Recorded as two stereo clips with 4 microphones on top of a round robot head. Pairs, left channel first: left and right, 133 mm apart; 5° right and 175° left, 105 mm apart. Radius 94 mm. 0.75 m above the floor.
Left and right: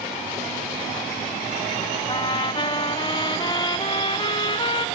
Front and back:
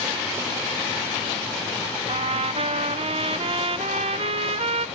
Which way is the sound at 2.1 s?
145° left.